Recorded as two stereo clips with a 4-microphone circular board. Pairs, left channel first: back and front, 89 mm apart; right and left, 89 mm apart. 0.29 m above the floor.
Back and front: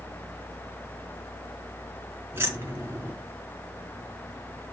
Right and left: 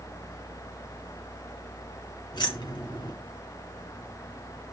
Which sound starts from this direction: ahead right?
Keys jangling, at 2.3 s.